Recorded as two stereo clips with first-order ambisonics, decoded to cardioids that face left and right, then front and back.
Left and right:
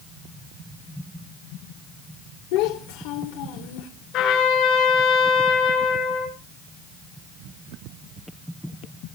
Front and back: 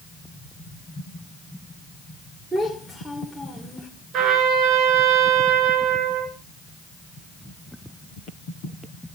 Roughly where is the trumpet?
Behind left.